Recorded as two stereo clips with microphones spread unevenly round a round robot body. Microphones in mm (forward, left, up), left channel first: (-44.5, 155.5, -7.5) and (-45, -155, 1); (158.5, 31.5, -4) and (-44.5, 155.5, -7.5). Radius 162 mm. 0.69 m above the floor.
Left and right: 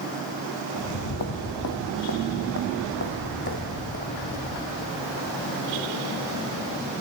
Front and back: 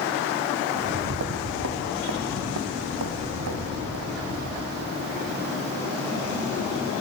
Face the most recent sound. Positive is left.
turn(degrees=150)